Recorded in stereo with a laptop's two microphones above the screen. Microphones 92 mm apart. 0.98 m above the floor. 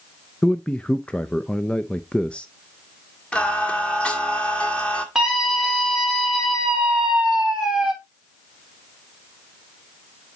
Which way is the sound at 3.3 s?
10° left (ahead or behind).